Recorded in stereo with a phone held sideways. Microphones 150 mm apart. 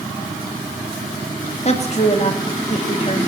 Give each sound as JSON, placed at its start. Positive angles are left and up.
{"t": 1.6, "sound": "a woman speaking", "side_deg": 45, "distance_m": 2.5}